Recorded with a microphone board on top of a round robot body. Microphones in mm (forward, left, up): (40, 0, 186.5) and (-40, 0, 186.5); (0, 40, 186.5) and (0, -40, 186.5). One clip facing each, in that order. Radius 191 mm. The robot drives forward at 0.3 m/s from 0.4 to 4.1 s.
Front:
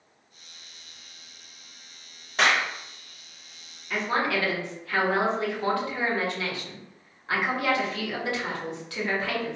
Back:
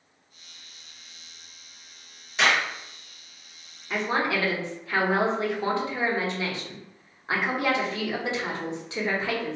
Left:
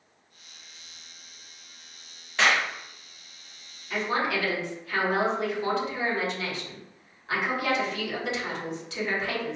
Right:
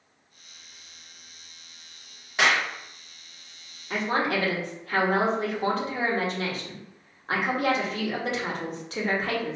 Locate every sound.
2.4 s a clap: 20° right, 1.7 m; by 2.7 s 25° right, 1.6 m
3.9 s a woman speaking: 120° right, 1.3 m